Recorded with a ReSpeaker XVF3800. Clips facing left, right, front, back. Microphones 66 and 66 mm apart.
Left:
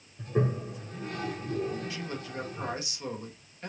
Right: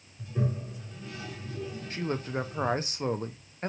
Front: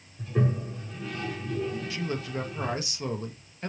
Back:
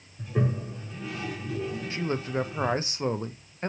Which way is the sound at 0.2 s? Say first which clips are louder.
Left 4 dB, front 1 dB; 95° left.